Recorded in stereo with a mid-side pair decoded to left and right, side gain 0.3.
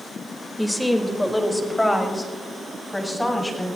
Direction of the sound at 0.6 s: 5° left.